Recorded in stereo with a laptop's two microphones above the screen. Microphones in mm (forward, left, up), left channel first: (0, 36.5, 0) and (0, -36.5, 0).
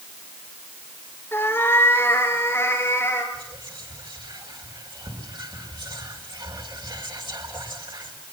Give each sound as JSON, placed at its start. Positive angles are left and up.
{"t": 1.3, "sound": "a cat meowing", "side_deg": 30, "distance_m": 2.0}
{"t": 3.3, "sound": "whispering", "side_deg": -80, "distance_m": 5.5}